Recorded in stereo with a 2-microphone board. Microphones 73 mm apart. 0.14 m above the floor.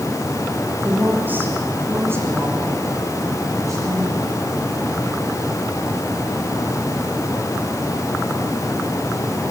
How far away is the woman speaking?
About 6 m.